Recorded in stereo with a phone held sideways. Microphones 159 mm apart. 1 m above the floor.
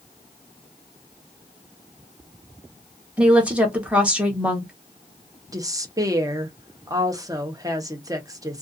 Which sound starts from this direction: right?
A woman speaking, at 5.5 s.